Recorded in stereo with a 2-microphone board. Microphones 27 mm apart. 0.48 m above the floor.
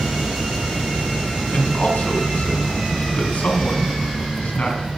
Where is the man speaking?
70° left (ahead or behind), 4 m.